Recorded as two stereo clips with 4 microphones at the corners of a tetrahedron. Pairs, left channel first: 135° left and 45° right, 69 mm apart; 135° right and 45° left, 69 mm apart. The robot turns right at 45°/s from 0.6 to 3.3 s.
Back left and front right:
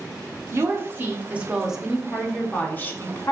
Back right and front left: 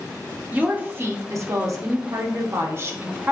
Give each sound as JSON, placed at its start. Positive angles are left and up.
{"t": 0.5, "sound": "a woman speaking", "azimuth_deg": -15, "distance_m": 0.6}